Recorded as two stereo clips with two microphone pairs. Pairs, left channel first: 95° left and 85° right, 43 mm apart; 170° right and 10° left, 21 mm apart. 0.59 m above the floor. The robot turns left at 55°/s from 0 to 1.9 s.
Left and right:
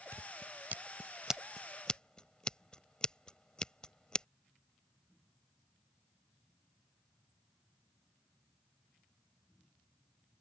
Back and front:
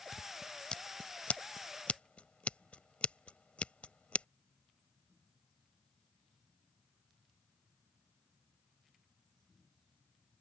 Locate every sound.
0.1 s scissors: 95° right; by 4.3 s 165° left